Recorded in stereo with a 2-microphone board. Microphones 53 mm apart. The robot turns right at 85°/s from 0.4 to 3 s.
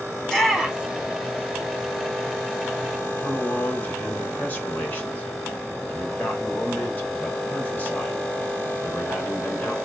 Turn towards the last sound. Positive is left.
turn(degrees=30)  # may be behind; listen again after turning